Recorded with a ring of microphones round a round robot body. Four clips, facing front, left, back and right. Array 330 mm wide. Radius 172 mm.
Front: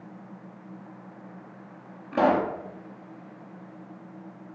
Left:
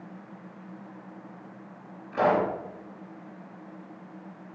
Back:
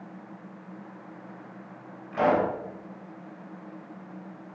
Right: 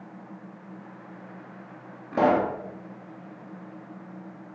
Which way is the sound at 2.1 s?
55° right.